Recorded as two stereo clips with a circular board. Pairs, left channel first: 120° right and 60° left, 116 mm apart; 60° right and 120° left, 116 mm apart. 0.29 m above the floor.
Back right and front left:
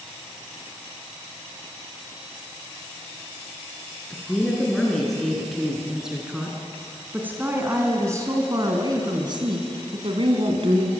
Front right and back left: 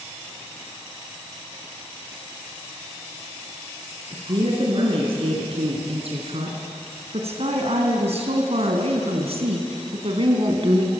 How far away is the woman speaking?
About 4.5 m.